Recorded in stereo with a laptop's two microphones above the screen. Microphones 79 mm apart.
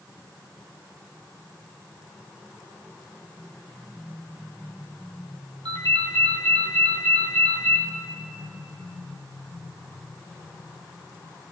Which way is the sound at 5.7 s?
80° right.